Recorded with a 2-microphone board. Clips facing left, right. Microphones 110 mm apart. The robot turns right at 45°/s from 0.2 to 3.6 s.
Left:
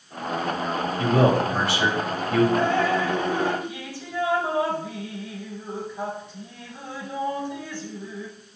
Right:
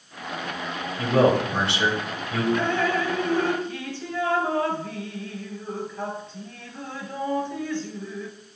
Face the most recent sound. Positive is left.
turn(degrees=165)